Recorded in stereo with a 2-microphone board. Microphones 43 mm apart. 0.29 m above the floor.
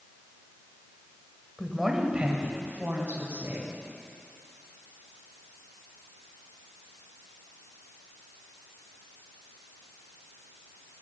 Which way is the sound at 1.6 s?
5° left (ahead or behind).